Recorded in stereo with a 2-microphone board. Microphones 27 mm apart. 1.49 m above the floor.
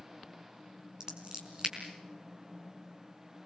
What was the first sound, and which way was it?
Scissors, 35° right (ahead or behind).